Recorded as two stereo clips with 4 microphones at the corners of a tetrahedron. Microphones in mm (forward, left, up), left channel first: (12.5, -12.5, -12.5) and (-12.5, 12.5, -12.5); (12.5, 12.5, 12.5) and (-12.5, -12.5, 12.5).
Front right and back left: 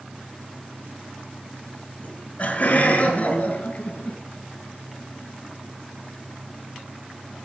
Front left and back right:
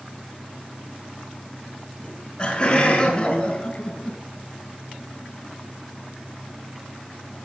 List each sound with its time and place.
2.0 s laughter: 20° right, 3.5 m; by 4.2 s 15° right, 4.5 m